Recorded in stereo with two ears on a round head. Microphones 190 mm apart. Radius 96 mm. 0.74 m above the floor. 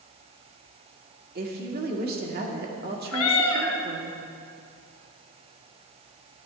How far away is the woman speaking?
About 1.8 m.